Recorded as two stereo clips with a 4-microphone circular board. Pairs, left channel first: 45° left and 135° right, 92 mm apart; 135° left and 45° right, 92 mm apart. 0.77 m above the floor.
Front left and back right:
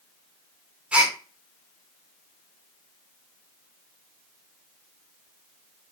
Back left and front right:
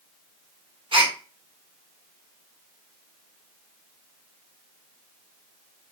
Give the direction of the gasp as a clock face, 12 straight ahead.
2 o'clock.